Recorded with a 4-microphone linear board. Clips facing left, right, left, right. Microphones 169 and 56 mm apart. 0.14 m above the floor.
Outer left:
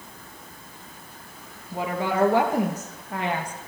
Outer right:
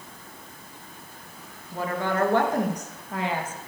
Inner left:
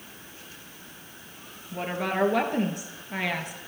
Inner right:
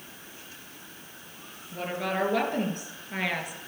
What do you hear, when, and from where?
1.7 s a woman speaking: 15° left (ahead or behind), 2.5 m; by 3.6 s 5° right (ahead or behind), 2.5 m